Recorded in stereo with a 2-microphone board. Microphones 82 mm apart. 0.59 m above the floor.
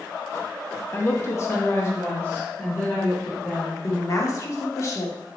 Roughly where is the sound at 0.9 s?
Left.